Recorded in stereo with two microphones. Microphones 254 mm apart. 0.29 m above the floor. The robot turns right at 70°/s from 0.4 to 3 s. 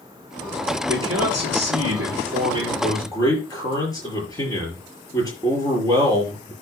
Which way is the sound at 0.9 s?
135° right.